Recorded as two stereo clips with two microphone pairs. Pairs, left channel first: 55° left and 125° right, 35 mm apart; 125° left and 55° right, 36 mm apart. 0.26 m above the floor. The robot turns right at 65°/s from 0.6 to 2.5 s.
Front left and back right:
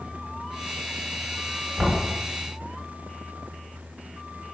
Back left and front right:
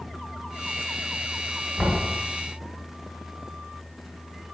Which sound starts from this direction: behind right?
Knocking, at 1.8 s.